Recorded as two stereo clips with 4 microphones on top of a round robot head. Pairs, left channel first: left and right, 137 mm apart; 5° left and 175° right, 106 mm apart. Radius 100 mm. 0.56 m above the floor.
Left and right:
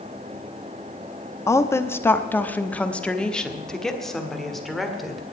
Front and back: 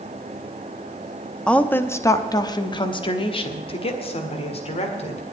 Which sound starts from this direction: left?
A woman speaking, at 1.5 s.